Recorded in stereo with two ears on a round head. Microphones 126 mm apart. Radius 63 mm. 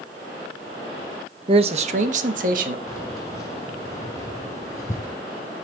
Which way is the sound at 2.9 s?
25° left (ahead or behind).